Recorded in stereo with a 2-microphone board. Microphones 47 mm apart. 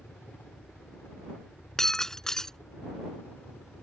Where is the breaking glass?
15° left (ahead or behind).